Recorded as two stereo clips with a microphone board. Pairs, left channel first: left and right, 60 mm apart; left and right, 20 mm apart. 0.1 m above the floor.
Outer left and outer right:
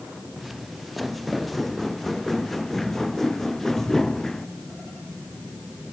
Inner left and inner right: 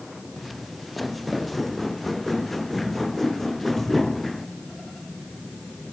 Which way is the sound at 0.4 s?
Centre (ahead or behind).